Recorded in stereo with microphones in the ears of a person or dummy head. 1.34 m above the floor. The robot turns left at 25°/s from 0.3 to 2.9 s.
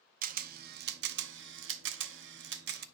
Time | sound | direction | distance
0.2 | a camera shutter | 45° right (ahead or behind) | 0.6 m